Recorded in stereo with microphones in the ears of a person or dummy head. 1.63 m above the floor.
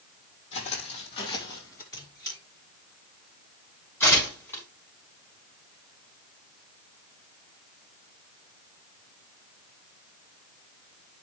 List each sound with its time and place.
0.5 s footsteps: 30° left (ahead or behind), 3 m; by 1.8 s 15° left (ahead or behind), 2.5 m
1.9 s a squeak: 20° left (ahead or behind), 6.5 m
4.0 s tearing paper: 10° left (ahead or behind), 6 m